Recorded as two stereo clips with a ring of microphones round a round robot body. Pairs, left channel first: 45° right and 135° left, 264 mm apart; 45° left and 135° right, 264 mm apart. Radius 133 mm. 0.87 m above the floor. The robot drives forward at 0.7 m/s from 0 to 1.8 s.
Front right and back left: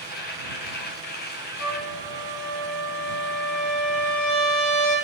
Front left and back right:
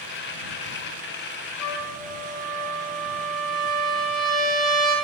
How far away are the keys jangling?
No keys jangling in this recording.